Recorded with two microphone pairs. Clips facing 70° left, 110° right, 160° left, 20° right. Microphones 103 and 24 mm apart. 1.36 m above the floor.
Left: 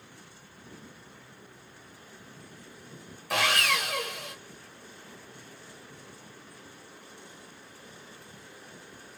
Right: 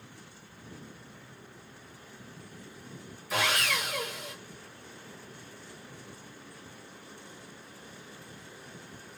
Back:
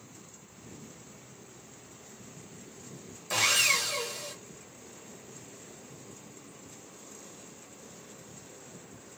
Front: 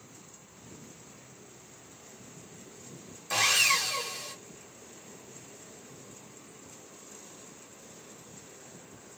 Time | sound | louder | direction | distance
3.3 | sawing | left 2 dB, front 1 dB | 70° left | 1.0 m